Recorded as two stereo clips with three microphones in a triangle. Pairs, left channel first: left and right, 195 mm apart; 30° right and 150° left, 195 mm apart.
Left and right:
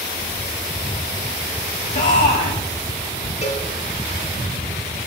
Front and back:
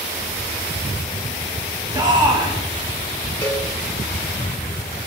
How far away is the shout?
About 1.2 m.